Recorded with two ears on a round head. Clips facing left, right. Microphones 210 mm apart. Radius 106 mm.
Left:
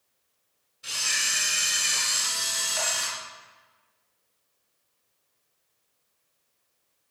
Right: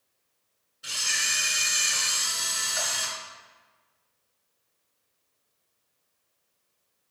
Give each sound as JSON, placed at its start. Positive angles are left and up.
{"t": 0.8, "sound": "a camera shutter", "side_deg": -5, "distance_m": 2.0}